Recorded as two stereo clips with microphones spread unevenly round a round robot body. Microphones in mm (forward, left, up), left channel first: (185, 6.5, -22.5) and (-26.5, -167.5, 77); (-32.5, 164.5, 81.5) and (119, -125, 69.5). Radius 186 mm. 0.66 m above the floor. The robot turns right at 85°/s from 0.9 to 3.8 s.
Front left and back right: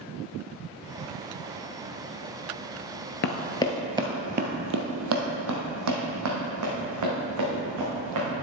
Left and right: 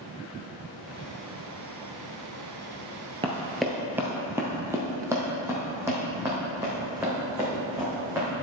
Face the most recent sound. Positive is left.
turn(degrees=-145)